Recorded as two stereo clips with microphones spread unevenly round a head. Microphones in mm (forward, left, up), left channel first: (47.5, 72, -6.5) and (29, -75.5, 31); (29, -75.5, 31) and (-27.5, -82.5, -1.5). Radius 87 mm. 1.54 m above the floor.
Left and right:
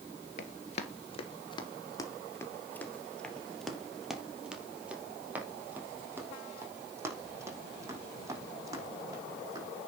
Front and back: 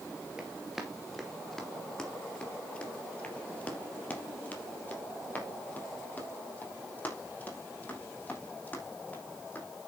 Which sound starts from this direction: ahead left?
Running footsteps, at 0.4 s.